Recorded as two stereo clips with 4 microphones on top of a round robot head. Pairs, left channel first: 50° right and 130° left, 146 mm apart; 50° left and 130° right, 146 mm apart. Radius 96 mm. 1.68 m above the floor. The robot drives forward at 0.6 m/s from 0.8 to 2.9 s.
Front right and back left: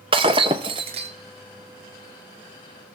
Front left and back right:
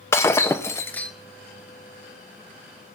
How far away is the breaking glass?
About 1.0 m.